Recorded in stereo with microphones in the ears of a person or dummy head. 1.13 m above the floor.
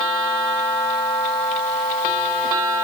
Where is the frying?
No frying in this recording.